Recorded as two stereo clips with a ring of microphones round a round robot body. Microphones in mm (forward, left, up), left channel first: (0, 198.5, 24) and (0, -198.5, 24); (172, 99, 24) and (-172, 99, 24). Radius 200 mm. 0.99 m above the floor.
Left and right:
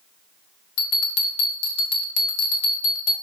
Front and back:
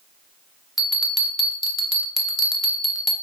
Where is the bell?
90° left, 0.8 m.